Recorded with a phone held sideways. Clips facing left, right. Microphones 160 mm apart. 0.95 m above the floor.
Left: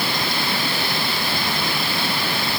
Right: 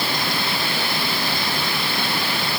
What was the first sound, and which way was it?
Only background noise.